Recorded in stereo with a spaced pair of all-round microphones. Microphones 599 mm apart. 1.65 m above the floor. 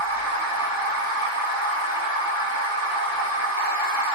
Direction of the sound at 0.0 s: 45° left (ahead or behind).